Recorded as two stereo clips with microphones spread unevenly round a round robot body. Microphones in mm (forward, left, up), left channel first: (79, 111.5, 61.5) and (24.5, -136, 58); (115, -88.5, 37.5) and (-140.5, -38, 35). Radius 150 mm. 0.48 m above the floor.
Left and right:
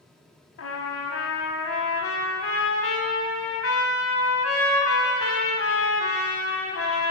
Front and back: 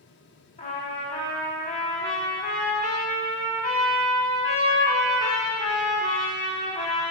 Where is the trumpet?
55° left, 1.0 m.